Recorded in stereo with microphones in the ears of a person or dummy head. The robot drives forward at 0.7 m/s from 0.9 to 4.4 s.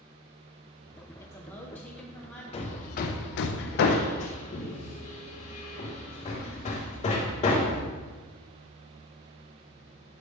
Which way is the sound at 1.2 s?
15° left (ahead or behind).